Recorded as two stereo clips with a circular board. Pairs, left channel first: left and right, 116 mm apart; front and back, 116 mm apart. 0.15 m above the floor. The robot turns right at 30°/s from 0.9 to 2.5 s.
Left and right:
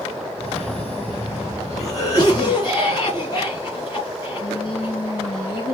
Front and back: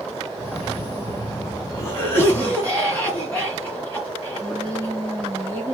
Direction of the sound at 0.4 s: 20° left.